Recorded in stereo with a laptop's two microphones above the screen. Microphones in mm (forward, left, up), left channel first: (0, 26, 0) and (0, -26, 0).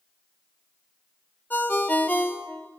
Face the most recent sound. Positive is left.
turn(degrees=40)  # may be behind; listen again after turning